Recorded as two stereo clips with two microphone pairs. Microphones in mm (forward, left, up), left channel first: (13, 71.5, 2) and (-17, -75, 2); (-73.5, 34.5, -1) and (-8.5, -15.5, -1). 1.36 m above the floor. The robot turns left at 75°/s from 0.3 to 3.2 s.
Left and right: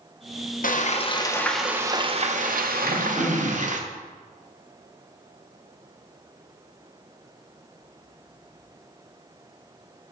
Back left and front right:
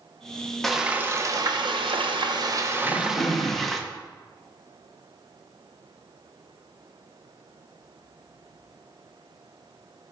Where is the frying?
60° left, 0.7 m; by 3.8 s 130° right, 0.7 m.